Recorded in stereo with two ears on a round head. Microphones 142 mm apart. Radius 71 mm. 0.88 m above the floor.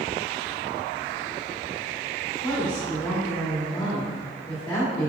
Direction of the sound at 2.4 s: 25° left (ahead or behind).